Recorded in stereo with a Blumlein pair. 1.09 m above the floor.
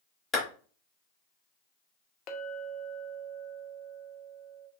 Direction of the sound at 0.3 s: 25° left.